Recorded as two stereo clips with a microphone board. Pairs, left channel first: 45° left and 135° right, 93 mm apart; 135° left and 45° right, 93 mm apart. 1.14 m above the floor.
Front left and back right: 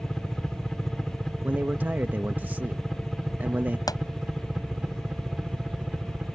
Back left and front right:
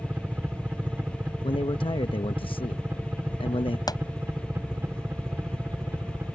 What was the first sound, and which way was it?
A helicopter, 25° right.